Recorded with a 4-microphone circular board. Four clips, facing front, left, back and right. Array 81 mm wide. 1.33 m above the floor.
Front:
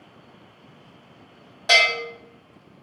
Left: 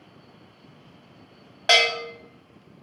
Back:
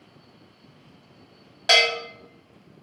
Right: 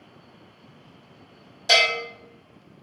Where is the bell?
105° left, 1.3 m.